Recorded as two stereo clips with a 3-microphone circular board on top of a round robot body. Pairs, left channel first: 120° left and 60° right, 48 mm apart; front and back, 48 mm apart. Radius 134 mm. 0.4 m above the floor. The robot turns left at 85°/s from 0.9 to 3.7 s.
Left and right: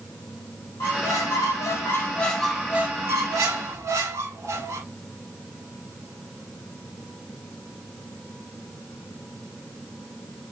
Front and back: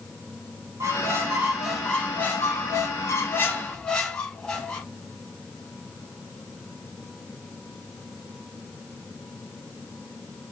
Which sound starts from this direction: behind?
A squeak, at 0.8 s.